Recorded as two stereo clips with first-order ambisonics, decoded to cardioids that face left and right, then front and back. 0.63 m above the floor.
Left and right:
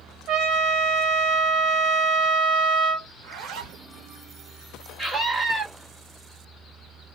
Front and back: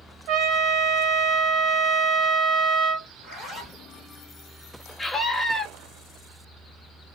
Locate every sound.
0.3 s a trumpet: 135° right, 1.0 m
3.1 s a zipper: 80° right, 1.5 m
5.0 s a scream: 55° right, 1.2 m